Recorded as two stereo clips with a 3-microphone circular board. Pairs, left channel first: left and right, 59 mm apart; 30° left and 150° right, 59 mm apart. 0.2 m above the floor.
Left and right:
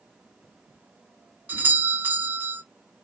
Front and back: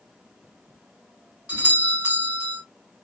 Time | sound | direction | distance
1.5 | a doorbell | 110° right | 1.7 m